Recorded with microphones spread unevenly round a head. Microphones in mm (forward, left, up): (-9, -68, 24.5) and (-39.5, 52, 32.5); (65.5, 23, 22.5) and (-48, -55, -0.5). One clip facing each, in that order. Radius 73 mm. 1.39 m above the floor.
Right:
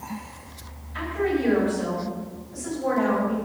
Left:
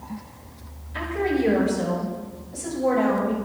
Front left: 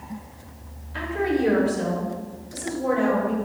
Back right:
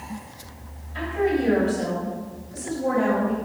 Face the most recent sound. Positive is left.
turn(degrees=35)